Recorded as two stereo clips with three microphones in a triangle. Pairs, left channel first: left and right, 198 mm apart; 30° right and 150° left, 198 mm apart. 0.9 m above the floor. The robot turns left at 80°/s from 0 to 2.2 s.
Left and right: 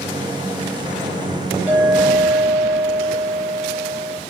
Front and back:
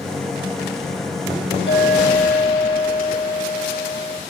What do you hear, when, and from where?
1.7 s a clink: 10° right, 4.5 m; by 4.2 s 50° right, 4.5 m